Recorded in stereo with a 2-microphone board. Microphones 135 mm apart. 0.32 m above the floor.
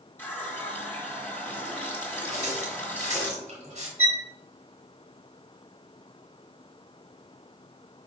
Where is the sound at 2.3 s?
60° right (ahead or behind), 2.5 m.